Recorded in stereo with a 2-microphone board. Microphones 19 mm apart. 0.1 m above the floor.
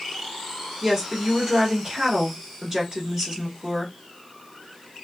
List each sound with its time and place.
0.8 s a woman speaking: 25° right (ahead or behind), 1.6 m